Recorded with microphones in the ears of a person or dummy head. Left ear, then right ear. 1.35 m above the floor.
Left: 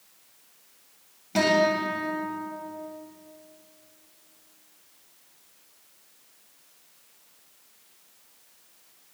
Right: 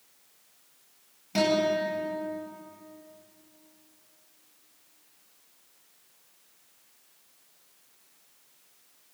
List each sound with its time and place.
1.4 s a guitar: 5° right (ahead or behind), 8.5 m